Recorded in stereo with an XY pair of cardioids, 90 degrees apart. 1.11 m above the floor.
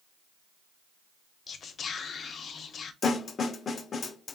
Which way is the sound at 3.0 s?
50° left.